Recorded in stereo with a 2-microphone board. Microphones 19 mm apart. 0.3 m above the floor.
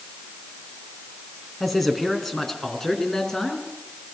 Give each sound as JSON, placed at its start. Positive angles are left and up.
{"t": 1.6, "sound": "a man speaking", "side_deg": 10, "distance_m": 3.5}